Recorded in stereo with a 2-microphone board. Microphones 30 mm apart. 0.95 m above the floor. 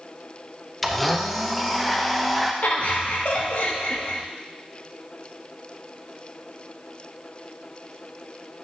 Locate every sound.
0.8 s a blender: 5° left (ahead or behind), 0.7 m
2.6 s laughter: 65° left (ahead or behind), 1.4 m